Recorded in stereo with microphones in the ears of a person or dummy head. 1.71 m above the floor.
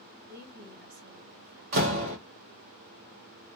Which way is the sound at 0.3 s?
60° right (ahead or behind).